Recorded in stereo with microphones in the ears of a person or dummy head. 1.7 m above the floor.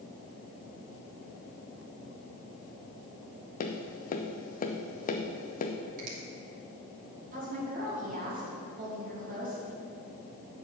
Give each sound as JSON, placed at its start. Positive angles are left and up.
{"t": 3.6, "sound": "tapping", "side_deg": 45, "distance_m": 0.8}
{"t": 6.0, "sound": "a finger snap", "side_deg": -50, "distance_m": 2.5}
{"t": 7.3, "sound": "a woman speaking", "side_deg": -55, "distance_m": 3.0}